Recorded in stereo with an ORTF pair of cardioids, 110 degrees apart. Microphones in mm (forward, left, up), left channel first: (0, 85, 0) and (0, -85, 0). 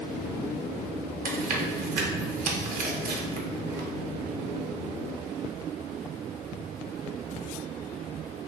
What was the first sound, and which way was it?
Chewing, 55° right.